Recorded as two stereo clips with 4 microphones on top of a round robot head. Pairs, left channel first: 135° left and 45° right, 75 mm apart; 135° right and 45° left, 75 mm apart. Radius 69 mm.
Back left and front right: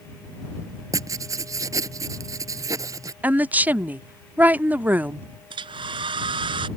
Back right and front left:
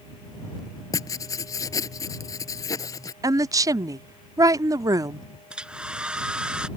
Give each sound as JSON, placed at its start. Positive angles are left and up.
{"t": 0.9, "sound": "writing", "azimuth_deg": -90}
{"t": 3.2, "sound": "a woman speaking", "azimuth_deg": 20}
{"t": 5.5, "sound": "a hair dryer", "azimuth_deg": -35}